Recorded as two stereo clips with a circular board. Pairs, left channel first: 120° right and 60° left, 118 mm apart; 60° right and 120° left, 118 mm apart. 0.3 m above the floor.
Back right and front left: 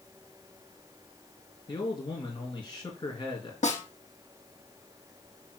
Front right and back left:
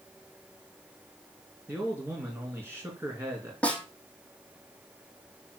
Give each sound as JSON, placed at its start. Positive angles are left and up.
{"t": 1.7, "sound": "a man speaking", "azimuth_deg": -170, "distance_m": 4.0}
{"t": 3.6, "sound": "a snare drum", "azimuth_deg": -140, "distance_m": 3.5}